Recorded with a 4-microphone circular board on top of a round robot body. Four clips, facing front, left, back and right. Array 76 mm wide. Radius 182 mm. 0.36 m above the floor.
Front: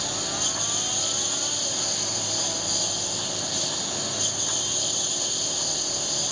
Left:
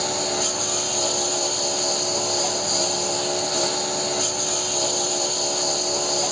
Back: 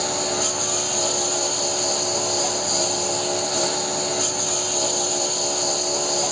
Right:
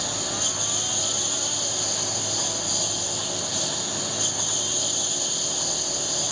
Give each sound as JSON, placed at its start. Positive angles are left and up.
{"t": 0.0, "sound": "a lawn mower", "azimuth_deg": 140}